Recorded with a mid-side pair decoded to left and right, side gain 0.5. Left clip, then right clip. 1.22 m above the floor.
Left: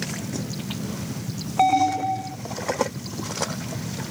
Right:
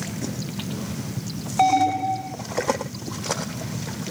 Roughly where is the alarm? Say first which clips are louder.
Even; ahead.